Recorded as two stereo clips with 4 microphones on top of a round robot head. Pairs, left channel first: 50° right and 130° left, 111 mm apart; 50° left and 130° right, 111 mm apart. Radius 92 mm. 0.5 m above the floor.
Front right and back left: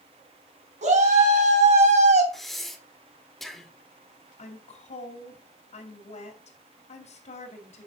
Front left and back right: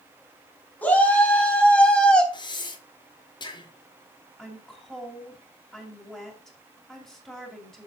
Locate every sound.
0.8 s a shout: 130° left, 4.5 m; by 2.2 s 135° left, 3 m
2.3 s breathing: 35° left, 1.7 m
4.4 s a woman speaking: 30° right, 2.5 m